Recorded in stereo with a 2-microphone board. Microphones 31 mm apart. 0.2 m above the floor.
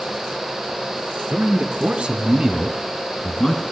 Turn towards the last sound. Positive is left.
turn(degrees=20)  # may be behind; listen again after turning